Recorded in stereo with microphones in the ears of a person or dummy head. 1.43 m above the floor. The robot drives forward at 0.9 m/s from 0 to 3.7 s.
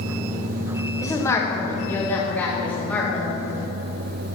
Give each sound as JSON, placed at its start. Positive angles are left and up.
{"t": 1.0, "sound": "a woman speaking", "side_deg": 20, "distance_m": 1.5}